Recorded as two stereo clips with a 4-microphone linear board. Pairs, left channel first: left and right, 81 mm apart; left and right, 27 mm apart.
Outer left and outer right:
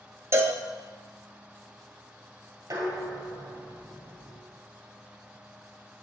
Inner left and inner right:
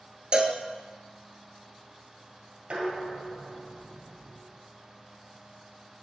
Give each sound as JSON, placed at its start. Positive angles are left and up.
{"t": 0.3, "sound": "a cowbell", "side_deg": -40, "distance_m": 0.6}
{"t": 2.7, "sound": "dishes clattering", "side_deg": -50, "distance_m": 1.8}